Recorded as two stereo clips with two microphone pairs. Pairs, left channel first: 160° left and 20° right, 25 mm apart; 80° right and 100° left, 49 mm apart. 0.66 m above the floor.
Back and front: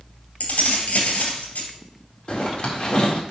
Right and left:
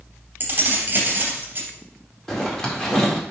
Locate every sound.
0.4 s keys jangling: 150° left, 2.5 m
2.3 s a zipper: 160° right, 2 m